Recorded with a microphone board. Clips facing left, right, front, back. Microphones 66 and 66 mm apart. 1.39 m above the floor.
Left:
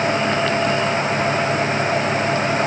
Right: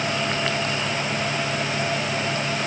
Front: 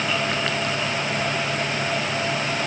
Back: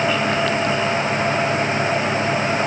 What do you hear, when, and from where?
Only background noise.